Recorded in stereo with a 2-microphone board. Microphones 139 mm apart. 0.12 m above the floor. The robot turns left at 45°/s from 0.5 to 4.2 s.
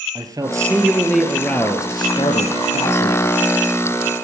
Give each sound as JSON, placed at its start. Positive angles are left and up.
{"t": 0.1, "sound": "a man speaking", "azimuth_deg": -150, "distance_m": 2.0}